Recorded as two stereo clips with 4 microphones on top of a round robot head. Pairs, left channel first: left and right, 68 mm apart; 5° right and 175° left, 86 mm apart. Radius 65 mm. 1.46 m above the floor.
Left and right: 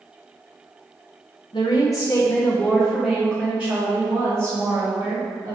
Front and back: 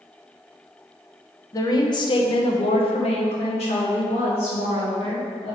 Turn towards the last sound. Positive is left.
turn(degrees=-30)